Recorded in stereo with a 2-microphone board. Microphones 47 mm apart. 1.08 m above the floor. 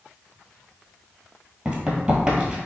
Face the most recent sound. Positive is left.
turn(degrees=-15)  # may be behind; listen again after turning